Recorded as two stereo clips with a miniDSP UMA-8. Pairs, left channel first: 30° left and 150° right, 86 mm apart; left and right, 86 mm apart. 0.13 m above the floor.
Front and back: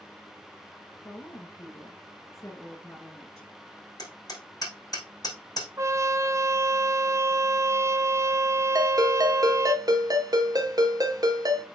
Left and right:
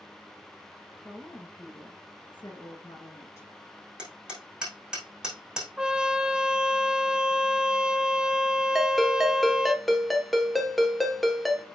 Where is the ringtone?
Straight behind, 1.5 m.